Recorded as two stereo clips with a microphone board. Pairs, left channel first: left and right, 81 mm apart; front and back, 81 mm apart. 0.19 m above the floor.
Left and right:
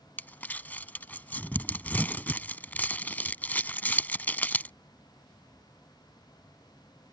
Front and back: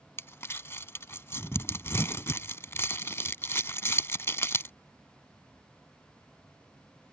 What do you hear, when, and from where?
0.2 s crumpling: 35° left